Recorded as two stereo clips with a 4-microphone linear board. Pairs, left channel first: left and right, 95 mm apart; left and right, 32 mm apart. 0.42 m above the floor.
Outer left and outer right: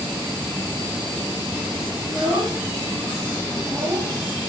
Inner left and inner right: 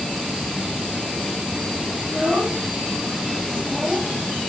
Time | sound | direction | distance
2.0 | a child speaking | 15° right (ahead or behind) | 3.5 m